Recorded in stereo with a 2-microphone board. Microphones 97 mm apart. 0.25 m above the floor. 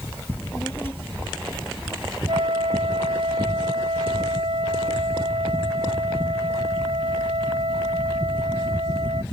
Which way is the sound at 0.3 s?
20° left (ahead or behind).